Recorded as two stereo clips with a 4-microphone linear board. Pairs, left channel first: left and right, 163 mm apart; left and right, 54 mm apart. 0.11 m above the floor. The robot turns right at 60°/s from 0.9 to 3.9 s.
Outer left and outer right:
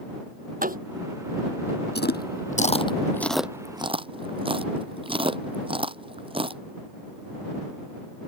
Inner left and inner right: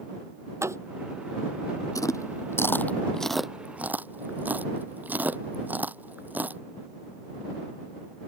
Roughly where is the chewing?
Left.